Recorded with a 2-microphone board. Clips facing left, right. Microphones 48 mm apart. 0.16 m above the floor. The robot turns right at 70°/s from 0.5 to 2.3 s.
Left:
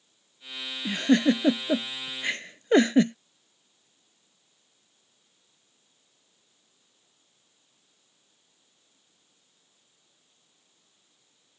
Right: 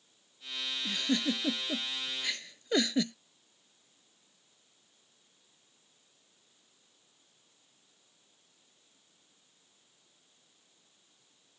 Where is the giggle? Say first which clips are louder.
Left 10 dB; 35° left (ahead or behind); by 3.1 s 40° left (ahead or behind).